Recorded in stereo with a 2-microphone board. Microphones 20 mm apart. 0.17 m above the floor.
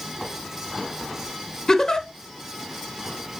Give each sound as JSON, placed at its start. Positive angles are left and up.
{"t": 1.7, "sound": "a giggle", "side_deg": 30, "distance_m": 0.9}